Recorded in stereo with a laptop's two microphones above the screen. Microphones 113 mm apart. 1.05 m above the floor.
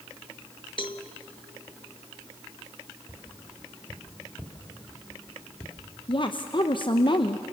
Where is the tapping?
30° left (ahead or behind), 2.5 m.